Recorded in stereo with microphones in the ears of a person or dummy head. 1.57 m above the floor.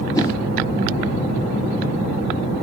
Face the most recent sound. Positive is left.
turn(degrees=25)  # may be behind; listen again after turning